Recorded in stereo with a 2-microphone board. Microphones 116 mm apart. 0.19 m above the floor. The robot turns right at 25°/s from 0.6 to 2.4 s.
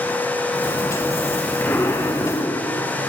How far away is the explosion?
About 1.7 m.